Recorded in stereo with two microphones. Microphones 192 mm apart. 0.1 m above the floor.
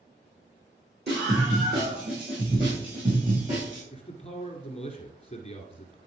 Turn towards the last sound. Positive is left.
turn(degrees=30)  # may be behind; listen again after turning